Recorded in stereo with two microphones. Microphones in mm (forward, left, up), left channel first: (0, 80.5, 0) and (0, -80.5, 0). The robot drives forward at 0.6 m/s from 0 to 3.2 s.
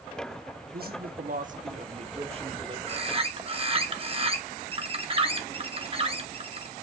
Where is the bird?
35° right (ahead or behind), 1.0 m.